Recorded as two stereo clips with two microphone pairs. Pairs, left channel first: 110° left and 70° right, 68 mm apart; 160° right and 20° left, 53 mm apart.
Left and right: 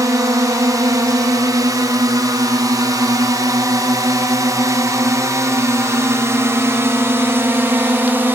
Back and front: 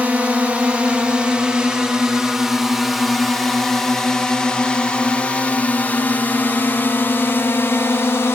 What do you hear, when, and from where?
0.0 s a drone: 40° right; by 8.4 s 130° right